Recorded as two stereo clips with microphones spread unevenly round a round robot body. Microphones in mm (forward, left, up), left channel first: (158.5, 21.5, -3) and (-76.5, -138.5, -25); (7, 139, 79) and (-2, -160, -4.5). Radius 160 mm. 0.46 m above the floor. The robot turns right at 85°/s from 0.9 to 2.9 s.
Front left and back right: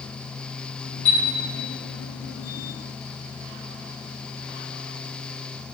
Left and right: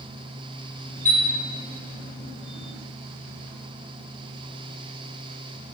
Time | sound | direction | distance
1.1 | a chime | 10° left | 1.8 m